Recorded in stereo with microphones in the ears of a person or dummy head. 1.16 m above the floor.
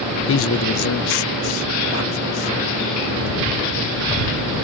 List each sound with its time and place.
0.3 s a man speaking: 55° left (ahead or behind); by 3.4 s 85° left